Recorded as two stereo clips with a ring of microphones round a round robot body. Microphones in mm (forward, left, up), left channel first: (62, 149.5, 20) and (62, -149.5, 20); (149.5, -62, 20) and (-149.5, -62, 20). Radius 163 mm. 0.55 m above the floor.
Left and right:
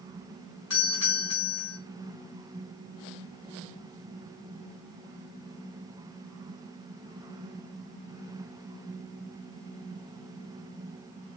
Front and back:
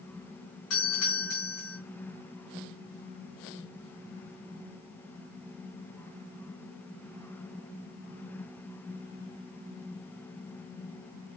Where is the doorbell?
50° left, 5.5 m.